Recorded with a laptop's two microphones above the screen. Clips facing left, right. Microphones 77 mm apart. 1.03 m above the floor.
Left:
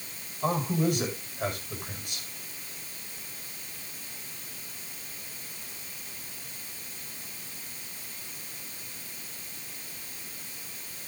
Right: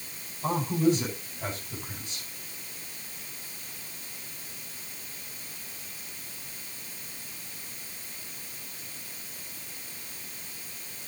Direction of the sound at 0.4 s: 65° left (ahead or behind).